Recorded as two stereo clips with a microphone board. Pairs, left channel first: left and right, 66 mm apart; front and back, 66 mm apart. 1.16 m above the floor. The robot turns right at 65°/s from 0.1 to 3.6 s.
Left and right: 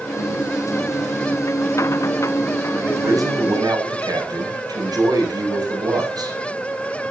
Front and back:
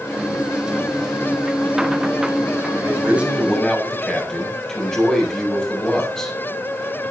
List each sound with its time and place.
2.8 s a man speaking: 135° right, 6.5 m; by 6.4 s 80° right, 6.5 m